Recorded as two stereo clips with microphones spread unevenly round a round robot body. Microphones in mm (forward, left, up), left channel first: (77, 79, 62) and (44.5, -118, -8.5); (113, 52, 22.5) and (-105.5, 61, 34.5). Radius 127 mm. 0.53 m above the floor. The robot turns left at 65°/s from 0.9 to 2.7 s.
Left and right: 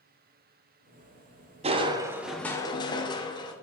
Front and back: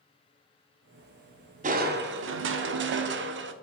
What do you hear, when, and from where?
1.6 s crushing: 130° right, 0.9 m; by 3.5 s 160° left, 0.9 m